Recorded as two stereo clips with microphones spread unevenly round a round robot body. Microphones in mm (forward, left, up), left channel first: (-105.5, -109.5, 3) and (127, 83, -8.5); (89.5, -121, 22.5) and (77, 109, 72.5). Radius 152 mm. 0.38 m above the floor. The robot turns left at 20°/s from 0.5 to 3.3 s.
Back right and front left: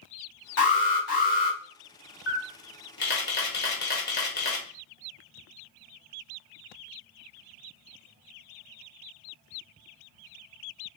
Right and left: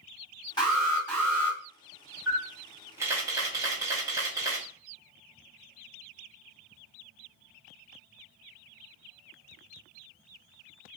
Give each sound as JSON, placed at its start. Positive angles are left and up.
{"t": 0.6, "sound": "an alarm", "azimuth_deg": -135, "distance_m": 1.6}
{"t": 2.3, "sound": "a camera shutter", "azimuth_deg": -160, "distance_m": 1.0}